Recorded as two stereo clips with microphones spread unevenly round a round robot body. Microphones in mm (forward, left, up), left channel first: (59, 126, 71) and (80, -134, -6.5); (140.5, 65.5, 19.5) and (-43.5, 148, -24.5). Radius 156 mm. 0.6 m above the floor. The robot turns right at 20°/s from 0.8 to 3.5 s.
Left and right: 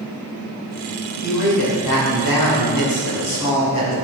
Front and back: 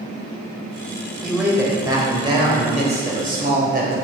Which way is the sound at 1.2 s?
70° left.